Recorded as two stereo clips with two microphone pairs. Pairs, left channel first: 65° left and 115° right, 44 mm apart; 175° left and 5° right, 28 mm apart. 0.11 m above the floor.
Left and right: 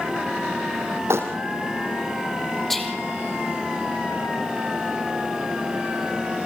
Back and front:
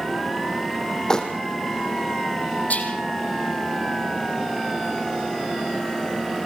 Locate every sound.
1.1 s crumpling: 120° right, 3.5 m
2.7 s whispering: 150° left, 4 m